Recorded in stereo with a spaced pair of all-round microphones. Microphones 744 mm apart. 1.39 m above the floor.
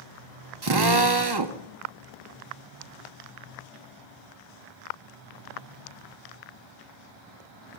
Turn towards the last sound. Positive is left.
turn(degrees=-35)  # may be behind; listen again after turning